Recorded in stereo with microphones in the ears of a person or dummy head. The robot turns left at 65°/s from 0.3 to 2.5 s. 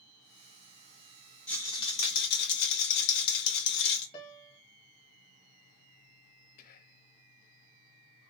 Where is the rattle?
Straight behind, 0.9 m; by 4.0 s 110° left, 0.9 m.